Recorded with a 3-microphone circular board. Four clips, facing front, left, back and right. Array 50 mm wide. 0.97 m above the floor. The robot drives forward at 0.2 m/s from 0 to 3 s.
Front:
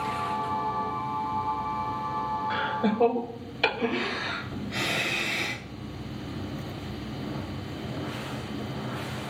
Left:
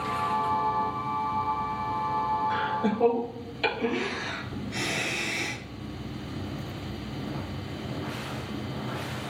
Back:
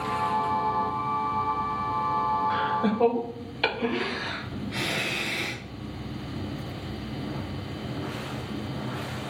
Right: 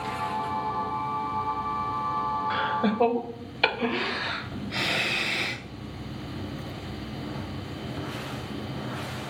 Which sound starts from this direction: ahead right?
Laughter, at 2.5 s.